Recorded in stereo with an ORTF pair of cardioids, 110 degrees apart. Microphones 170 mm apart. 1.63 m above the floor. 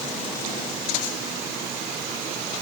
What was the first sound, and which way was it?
Only background noise.